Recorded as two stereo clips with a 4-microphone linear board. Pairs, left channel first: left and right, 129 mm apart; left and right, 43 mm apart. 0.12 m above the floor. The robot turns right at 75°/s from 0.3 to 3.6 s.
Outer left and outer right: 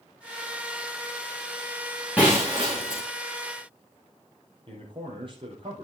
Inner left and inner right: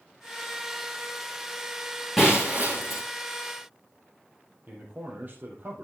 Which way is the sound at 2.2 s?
170° right.